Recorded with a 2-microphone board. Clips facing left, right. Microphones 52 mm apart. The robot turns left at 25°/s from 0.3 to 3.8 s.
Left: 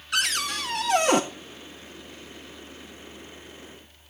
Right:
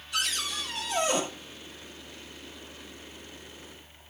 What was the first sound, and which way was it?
A cupboard door, 65° left (ahead or behind).